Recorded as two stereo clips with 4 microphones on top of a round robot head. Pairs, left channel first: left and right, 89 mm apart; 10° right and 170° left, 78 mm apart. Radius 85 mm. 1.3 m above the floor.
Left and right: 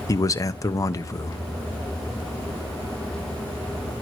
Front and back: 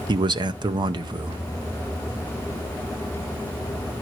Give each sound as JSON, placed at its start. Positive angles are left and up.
{"t": 0.1, "sound": "a man speaking", "azimuth_deg": 145, "distance_m": 0.7}